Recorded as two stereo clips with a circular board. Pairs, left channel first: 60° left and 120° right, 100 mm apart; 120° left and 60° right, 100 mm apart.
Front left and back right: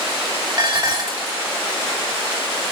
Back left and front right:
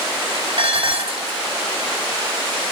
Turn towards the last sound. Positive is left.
turn(degrees=-75)